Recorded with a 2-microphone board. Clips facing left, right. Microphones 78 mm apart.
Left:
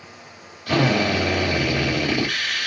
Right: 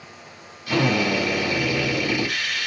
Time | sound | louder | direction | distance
0.7 | a drill | left 1 dB | 65° left (ahead or behind) | 3 m